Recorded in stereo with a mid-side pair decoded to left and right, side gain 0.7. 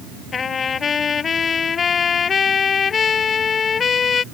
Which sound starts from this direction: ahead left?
A trumpet, at 0.3 s.